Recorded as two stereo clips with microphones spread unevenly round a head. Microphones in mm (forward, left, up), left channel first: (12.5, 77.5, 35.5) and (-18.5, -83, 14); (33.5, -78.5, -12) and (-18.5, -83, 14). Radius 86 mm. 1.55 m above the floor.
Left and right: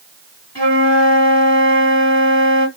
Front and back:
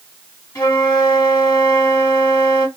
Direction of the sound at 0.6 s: 35° left.